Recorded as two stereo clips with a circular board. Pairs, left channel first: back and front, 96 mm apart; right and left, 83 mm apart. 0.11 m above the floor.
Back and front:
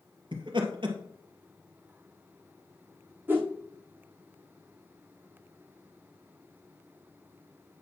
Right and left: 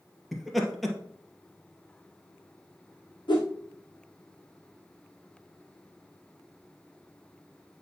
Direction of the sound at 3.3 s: 70° right.